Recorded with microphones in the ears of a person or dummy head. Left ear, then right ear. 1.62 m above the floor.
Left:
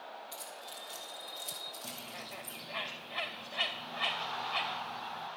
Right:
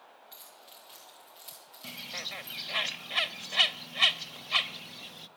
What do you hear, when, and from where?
0.3 s keys jangling: 10° left (ahead or behind), 3 m; by 2.6 s 10° right (ahead or behind), 3 m
1.8 s a bird: 75° right (ahead or behind), 0.7 m